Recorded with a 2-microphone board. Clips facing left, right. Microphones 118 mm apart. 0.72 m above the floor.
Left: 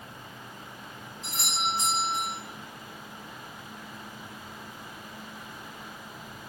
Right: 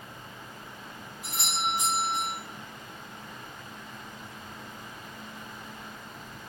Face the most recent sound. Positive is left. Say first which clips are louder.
# even
turn(degrees=-10)  # may be behind; listen again after turning